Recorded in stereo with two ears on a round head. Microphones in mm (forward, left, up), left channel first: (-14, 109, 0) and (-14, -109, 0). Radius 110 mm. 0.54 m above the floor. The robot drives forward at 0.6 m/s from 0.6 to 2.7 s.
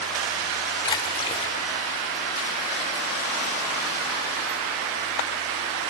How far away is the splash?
About 1.6 m.